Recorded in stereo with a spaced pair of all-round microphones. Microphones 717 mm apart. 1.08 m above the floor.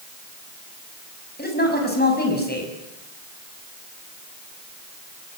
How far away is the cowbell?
I don't hear a cowbell.